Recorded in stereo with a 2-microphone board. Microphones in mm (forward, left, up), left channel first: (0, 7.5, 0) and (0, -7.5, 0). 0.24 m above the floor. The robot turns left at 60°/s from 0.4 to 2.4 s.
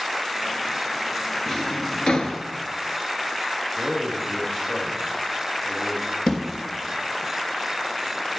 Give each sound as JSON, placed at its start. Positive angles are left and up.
{"t": 1.5, "sound": "a drawer", "side_deg": 25, "distance_m": 1.0}
{"t": 3.8, "sound": "a man speaking", "side_deg": 75, "distance_m": 3.5}
{"t": 6.3, "sound": "a thud", "side_deg": 70, "distance_m": 2.5}